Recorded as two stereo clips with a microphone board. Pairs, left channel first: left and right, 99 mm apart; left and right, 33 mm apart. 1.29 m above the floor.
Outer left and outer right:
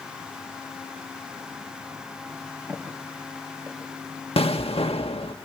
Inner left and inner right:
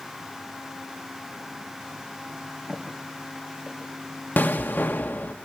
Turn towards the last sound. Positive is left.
turn(degrees=75)  # may be behind; listen again after turning